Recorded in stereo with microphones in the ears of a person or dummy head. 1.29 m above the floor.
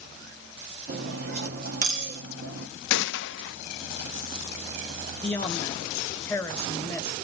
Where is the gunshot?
65° left (ahead or behind), 0.6 m.